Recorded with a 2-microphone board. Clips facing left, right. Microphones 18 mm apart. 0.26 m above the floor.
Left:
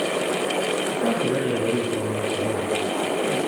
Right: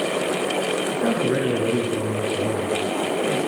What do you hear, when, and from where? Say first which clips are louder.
0.9 s a man speaking: right 2 dB; 60° right (ahead or behind), 3.5 m